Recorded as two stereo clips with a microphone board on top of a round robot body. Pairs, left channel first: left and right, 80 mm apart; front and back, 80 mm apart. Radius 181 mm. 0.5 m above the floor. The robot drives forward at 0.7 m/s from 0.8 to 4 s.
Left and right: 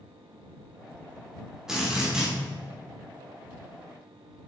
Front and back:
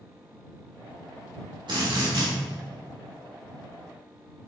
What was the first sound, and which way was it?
A drill, 170° right.